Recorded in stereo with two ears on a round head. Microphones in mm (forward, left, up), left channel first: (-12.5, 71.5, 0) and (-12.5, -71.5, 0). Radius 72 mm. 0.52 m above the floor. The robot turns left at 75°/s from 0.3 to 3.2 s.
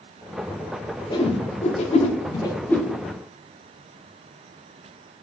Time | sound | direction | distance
1.1 | a whoosh | 30° left (ahead or behind) | 0.5 m